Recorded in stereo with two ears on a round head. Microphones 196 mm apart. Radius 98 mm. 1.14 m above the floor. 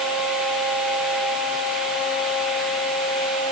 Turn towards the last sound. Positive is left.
No sound to turn to.